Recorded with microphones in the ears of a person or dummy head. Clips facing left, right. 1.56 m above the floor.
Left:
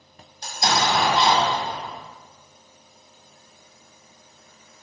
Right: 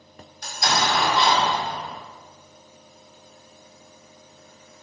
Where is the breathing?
I don't hear breathing.